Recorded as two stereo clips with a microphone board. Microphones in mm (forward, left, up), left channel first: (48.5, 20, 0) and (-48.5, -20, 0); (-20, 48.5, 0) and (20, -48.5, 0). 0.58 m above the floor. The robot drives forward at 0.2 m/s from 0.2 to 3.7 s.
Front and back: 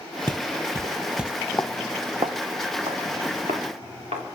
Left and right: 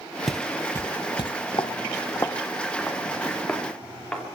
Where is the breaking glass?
No breaking glass in this recording.